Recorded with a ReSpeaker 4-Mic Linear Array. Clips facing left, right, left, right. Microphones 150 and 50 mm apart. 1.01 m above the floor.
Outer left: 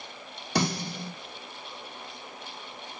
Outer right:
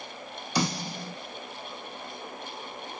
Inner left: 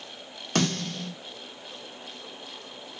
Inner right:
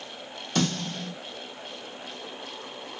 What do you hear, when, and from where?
0.6 s a snare drum: 60° left (ahead or behind), 0.9 m